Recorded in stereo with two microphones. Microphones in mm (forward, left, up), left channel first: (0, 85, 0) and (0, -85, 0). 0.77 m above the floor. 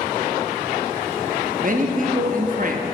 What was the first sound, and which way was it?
A man speaking, 55° right (ahead or behind).